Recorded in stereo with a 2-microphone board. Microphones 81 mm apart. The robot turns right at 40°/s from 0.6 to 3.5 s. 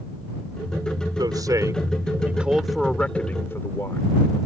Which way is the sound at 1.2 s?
60° right.